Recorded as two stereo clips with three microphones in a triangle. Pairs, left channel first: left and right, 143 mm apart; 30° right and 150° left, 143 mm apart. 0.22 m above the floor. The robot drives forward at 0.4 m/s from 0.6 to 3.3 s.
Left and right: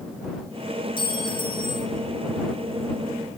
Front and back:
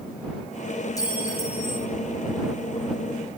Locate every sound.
1.0 s a clink: 35° left, 3 m; by 1.9 s 40° left, 2.5 m